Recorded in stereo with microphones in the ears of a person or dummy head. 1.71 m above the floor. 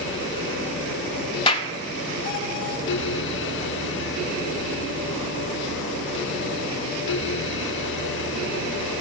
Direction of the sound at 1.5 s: 25° left (ahead or behind).